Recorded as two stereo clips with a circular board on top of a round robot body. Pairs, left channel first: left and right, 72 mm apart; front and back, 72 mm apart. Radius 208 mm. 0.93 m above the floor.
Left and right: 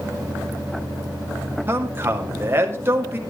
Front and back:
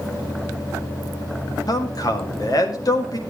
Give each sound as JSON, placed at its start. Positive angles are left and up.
{"t": 1.7, "sound": "a man speaking", "azimuth_deg": -30, "distance_m": 1.9}